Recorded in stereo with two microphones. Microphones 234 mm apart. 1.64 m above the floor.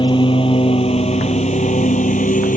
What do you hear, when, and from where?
0.0 s a lawn mower: 20° left (ahead or behind); by 2.6 s 35° left (ahead or behind)